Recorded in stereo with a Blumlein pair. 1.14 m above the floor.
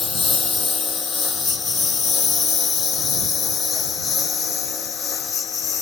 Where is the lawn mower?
10° left; by 5.8 s 20° left.